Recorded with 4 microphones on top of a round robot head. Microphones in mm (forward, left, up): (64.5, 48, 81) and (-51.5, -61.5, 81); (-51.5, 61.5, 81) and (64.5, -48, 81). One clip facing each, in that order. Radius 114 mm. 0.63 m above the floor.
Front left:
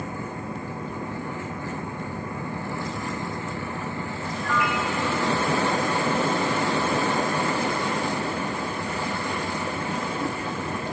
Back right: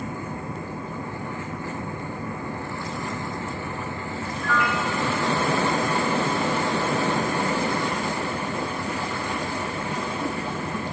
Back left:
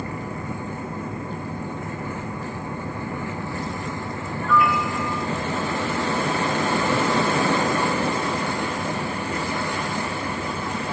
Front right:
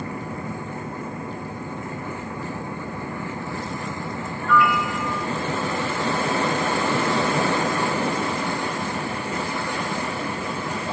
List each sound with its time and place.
4.4 s a piano: 145° right, 2.5 m